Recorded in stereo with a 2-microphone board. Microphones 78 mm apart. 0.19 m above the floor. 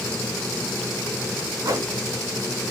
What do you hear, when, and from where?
1.6 s a whoosh: 50° right (ahead or behind), 0.8 m